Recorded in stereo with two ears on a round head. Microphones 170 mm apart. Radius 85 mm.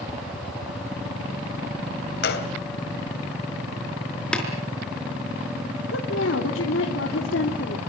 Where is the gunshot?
55° left (ahead or behind), 2.5 m.